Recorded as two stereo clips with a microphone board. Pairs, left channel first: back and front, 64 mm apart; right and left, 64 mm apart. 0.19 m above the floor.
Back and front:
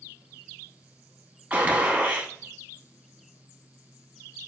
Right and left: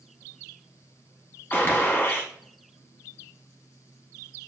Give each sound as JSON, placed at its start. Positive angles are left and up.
{"t": 1.5, "sound": "a gunshot", "azimuth_deg": -60, "distance_m": 0.6}